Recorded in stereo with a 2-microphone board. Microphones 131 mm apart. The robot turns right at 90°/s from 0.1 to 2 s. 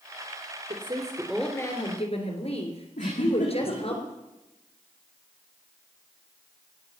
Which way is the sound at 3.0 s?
70° left (ahead or behind).